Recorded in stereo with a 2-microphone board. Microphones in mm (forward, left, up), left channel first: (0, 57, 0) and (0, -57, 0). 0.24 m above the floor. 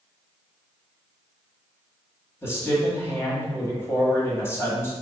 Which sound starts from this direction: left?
A man speaking, at 2.4 s.